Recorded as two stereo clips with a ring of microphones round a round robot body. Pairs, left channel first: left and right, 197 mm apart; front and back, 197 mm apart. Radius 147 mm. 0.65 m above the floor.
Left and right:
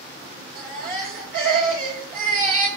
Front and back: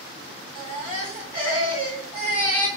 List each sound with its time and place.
0.6 s a baby crying: 125° right, 2.0 m